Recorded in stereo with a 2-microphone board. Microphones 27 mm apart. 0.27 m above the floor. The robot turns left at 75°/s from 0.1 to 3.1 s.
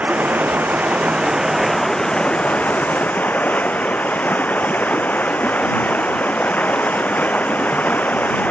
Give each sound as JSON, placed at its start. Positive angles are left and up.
{"t": 0.0, "sound": "running water", "azimuth_deg": -60}